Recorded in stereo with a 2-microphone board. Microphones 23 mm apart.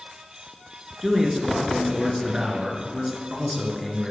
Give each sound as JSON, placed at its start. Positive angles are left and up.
{"t": 1.0, "sound": "a man speaking", "side_deg": -5, "distance_m": 2.0}